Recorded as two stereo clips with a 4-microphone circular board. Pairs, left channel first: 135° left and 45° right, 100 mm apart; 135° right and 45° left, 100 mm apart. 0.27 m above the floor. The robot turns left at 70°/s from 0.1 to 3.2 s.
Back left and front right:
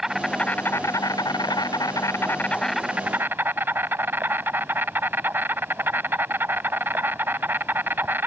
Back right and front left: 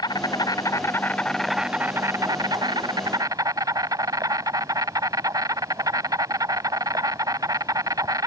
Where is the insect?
130° right; by 8.3 s 15° left.